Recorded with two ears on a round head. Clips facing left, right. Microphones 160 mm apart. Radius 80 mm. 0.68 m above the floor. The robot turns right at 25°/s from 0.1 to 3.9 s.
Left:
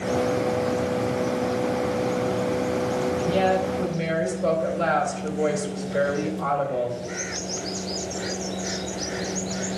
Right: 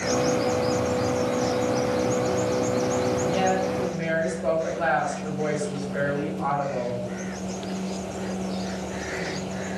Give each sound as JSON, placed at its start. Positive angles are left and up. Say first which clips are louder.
{"t": 3.2, "sound": "a woman speaking", "louder": "left 1 dB", "side_deg": 30, "distance_m": 2.5}